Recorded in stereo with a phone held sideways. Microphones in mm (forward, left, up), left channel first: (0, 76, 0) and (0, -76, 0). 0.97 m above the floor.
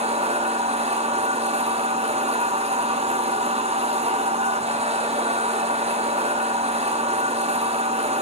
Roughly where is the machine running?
Right.